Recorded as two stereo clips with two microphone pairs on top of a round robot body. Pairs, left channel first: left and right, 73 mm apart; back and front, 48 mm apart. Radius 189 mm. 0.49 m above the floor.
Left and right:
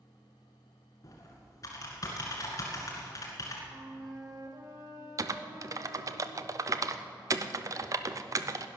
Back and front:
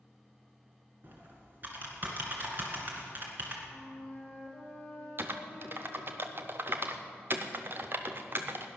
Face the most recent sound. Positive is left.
turn(degrees=-50)